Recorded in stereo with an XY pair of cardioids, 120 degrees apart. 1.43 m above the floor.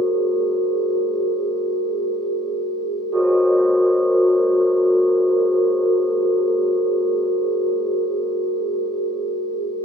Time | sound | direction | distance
0.0 | a machine running | 20° right | 0.9 m